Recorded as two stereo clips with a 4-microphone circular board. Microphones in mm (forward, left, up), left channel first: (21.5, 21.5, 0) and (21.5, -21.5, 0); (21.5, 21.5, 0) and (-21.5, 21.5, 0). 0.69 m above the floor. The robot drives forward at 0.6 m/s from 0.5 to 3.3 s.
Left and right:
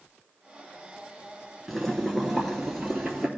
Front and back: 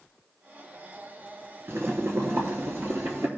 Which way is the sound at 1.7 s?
170° left.